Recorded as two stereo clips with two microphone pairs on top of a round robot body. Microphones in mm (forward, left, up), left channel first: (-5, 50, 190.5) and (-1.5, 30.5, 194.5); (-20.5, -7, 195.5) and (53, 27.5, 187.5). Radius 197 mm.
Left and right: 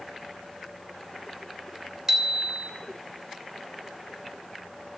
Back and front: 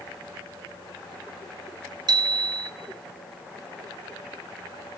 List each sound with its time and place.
2.1 s a bicycle bell: 10° right, 2.5 m